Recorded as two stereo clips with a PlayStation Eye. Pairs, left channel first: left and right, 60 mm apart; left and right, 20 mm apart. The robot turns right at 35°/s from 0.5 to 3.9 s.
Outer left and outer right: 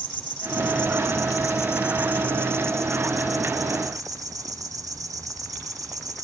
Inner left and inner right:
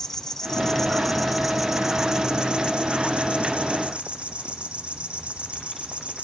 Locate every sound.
0.0 s an insect: 175° left, 1.7 m; by 6.2 s 65° right, 1.7 m